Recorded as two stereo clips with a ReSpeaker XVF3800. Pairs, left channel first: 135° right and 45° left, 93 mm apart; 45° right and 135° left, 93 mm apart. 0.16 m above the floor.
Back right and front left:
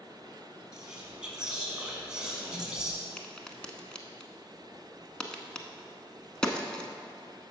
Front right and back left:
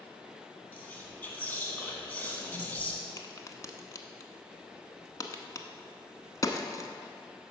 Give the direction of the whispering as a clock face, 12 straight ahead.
1 o'clock.